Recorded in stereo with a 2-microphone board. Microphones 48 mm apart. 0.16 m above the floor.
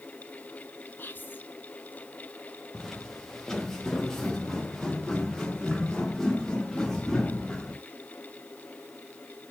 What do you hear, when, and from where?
1.0 s whispering: 45° left (ahead or behind), 1.5 m
2.7 s footsteps: 5° left (ahead or behind), 2 m; by 7.8 s 10° left (ahead or behind), 4.5 m